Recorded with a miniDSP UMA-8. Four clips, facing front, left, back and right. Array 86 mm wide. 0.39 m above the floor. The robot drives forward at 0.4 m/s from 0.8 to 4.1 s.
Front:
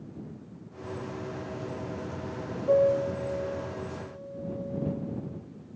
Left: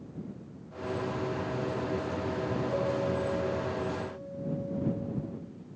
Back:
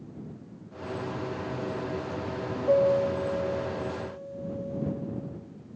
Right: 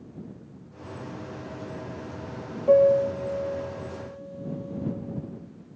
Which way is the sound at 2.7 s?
105° right.